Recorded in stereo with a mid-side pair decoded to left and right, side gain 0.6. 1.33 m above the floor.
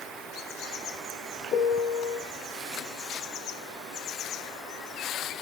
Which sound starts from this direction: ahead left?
A piano, at 1.5 s.